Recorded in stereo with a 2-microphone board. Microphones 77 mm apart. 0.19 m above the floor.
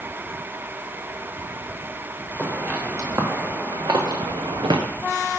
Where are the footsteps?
25° right (ahead or behind), 2 m; by 4.8 s 75° right (ahead or behind), 1.0 m.